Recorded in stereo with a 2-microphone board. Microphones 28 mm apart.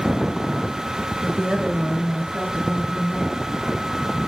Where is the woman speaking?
25° right (ahead or behind), 0.9 m; by 3.4 s 50° right (ahead or behind), 2 m.